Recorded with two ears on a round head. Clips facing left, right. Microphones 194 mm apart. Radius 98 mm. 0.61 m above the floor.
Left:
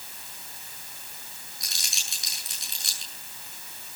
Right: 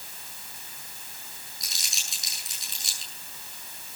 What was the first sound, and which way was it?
Crumpling, 50° left (ahead or behind).